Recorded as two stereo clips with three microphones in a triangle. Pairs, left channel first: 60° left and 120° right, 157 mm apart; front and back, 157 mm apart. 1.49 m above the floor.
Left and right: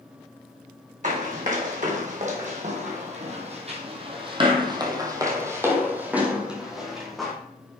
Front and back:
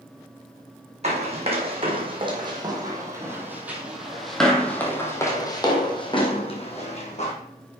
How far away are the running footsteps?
About 3 m.